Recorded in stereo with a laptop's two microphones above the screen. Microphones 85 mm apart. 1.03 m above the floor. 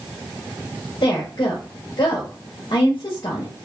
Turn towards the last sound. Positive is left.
turn(degrees=60)  # may be behind; listen again after turning